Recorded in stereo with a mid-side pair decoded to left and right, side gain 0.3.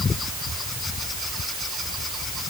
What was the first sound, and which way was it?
Only background noise.